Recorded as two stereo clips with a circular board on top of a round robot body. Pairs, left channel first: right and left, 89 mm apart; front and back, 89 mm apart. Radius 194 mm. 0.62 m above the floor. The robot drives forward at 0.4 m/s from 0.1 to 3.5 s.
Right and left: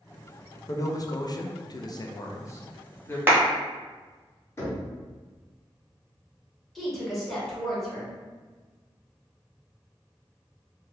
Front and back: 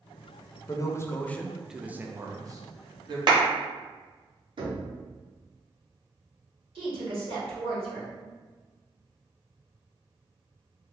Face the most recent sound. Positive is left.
turn(degrees=180)